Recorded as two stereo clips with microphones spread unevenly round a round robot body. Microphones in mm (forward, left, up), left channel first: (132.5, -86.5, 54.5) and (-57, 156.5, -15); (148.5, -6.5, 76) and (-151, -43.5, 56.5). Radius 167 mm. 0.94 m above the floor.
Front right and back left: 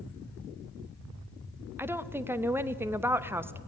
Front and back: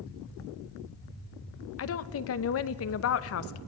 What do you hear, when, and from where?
1.8 s a woman speaking: 50° left, 0.9 m